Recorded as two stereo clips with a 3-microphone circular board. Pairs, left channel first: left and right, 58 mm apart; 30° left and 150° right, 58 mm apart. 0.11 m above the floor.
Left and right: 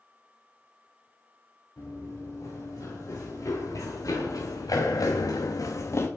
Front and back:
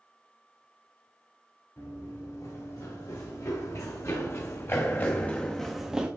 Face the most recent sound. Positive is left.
turn(degrees=140)